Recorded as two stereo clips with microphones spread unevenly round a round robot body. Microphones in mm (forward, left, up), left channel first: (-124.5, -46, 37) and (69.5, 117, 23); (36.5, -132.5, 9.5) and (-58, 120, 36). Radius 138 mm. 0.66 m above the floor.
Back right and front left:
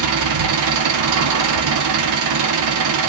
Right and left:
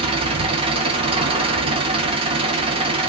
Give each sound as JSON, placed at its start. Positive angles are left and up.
{"t": 0.0, "sound": "an engine running", "azimuth_deg": 40, "distance_m": 0.8}